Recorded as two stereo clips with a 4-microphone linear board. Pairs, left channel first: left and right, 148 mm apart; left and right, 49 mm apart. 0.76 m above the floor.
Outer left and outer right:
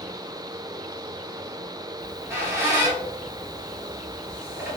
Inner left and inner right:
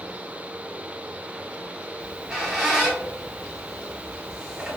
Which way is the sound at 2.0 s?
15° right (ahead or behind).